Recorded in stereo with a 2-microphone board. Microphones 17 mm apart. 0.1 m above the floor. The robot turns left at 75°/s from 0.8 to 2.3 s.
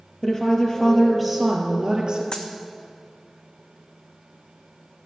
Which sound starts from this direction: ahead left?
A woman speaking, at 0.2 s.